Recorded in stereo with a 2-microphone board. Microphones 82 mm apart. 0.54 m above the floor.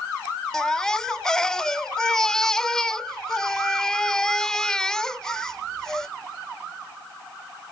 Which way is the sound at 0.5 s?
5° left (ahead or behind).